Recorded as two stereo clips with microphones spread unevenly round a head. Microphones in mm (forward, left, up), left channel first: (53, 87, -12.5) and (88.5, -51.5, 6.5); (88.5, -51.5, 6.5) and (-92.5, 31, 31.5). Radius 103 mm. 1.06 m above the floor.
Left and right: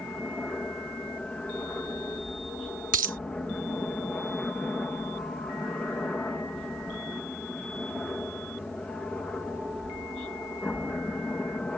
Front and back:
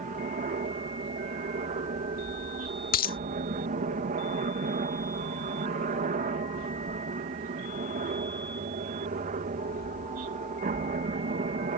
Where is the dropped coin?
75° right.